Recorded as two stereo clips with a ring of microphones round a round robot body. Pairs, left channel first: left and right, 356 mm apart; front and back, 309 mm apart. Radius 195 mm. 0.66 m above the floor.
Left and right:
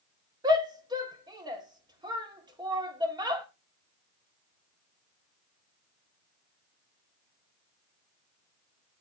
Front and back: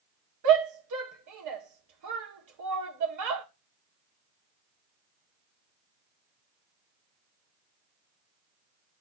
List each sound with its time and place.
0.4 s a shout: 170° right, 1.7 m